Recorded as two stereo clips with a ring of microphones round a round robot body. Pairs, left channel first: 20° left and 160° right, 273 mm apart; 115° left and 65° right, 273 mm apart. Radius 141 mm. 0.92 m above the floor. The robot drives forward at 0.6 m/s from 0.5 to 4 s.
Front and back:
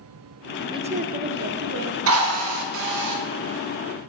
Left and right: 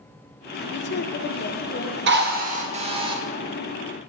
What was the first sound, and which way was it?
A woman speaking, 135° left.